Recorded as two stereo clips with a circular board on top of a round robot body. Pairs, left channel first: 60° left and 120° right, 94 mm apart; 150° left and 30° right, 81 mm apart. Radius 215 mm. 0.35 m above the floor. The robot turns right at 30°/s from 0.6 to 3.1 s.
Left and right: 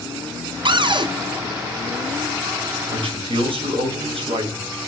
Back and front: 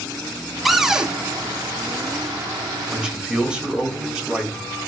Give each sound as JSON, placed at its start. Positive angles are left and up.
{"t": 0.7, "sound": "a cupboard door", "azimuth_deg": -120, "distance_m": 1.0}
{"t": 2.9, "sound": "a man speaking", "azimuth_deg": -115, "distance_m": 2.5}